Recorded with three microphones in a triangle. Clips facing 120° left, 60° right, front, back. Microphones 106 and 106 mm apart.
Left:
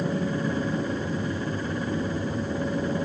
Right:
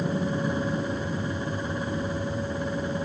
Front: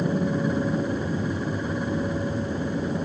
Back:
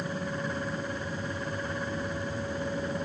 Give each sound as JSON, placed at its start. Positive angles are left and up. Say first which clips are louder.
{"t": 0.0, "sound": "an aircraft", "louder": "even, front 9 dB", "azimuth_deg": 40}